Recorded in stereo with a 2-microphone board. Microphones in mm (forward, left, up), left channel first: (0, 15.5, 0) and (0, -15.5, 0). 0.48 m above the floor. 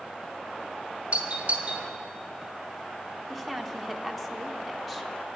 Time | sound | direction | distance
1.1 | a doorbell | 35° right (ahead or behind) | 1.3 m
3.3 | a woman speaking | 5° left (ahead or behind) | 0.8 m